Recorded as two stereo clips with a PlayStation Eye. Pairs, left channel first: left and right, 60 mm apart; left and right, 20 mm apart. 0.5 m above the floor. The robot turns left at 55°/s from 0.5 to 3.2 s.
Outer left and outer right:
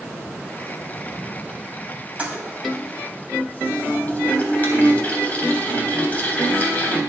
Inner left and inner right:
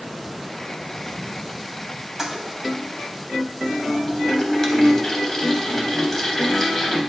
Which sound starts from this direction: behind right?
A toilet flushing, at 2.2 s.